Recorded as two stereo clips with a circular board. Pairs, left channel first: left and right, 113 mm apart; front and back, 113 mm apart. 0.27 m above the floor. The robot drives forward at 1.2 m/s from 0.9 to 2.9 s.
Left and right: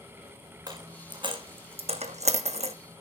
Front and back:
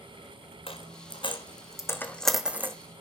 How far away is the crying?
I don't hear crying.